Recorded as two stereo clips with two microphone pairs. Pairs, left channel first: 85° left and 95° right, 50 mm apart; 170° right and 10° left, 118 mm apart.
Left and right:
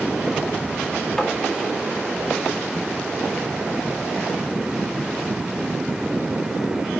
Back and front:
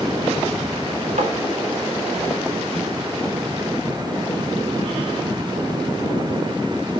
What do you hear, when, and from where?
1.2 s tapping: 10° left, 2.5 m